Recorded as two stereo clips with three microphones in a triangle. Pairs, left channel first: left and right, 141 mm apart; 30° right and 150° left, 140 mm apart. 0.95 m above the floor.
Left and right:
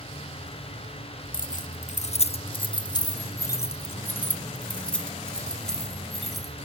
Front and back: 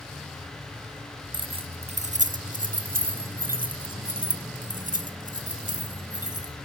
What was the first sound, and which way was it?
Keys jangling, 95° left.